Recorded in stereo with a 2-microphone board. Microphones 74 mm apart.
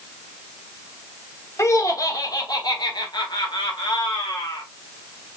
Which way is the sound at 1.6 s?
40° left (ahead or behind).